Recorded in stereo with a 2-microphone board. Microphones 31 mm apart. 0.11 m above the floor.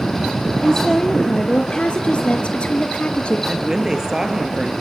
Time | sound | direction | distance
0.6 | a woman speaking | 25° left (ahead or behind) | 2.0 m
3.5 | a woman speaking | 20° right (ahead or behind) | 1.7 m